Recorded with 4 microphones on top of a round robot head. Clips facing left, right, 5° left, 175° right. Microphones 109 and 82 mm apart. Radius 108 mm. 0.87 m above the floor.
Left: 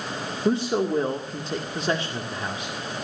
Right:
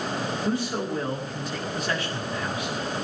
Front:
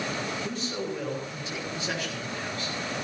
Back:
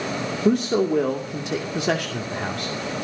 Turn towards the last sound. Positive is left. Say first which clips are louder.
# left 8 dB, back 13 dB
turn(degrees=155)